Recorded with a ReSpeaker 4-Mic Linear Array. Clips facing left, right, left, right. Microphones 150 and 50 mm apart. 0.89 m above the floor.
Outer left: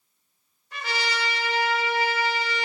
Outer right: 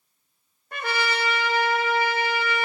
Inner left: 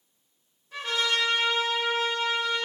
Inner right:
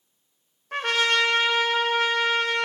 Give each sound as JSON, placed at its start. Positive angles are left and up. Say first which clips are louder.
{"t": 0.7, "sound": "a trumpet", "louder": "outer right 3 dB, inner right 5 dB", "side_deg": -55, "distance_m": 0.6}